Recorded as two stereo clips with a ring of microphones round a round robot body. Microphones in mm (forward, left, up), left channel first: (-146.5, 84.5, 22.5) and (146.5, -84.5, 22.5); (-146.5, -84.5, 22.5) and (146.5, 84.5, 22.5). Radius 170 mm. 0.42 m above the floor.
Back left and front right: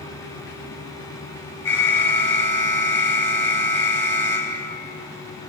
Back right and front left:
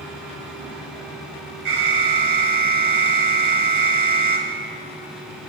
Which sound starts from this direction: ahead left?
An alarm, at 1.6 s.